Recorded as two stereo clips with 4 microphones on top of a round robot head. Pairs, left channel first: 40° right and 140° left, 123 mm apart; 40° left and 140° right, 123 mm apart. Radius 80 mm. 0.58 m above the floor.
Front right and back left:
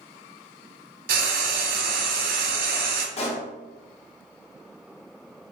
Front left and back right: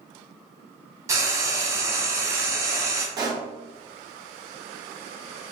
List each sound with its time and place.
1.1 s frying: 155° left, 0.7 m
3.2 s a pop: 80° right, 1.0 m